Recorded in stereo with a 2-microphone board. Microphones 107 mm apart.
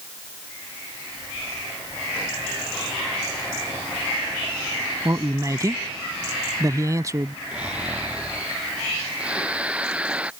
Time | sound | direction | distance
5.0 | a man speaking | 30° right (ahead or behind) | ?
7.5 | snoring | 10° right (ahead or behind) | ?